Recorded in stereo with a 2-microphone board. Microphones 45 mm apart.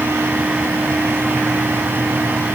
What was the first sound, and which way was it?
Only background noise.